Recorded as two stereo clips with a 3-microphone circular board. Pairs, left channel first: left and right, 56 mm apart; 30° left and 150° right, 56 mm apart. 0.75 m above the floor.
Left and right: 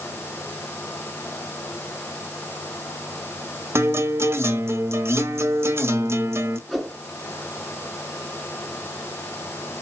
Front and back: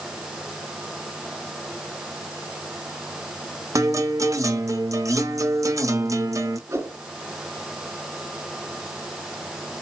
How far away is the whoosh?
About 3.5 m.